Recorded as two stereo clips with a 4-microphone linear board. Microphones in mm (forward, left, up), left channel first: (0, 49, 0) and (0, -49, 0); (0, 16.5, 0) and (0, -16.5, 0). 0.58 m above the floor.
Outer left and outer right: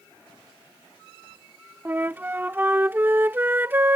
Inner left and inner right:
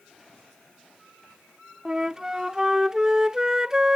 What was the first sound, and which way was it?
A flute, 20° right (ahead or behind).